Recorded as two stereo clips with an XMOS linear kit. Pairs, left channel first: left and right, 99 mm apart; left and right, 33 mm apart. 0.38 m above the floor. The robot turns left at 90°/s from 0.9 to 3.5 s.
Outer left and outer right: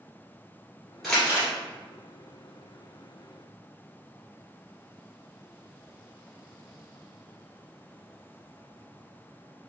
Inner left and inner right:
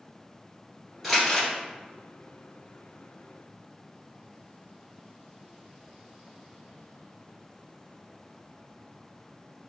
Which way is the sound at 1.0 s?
Centre (ahead or behind).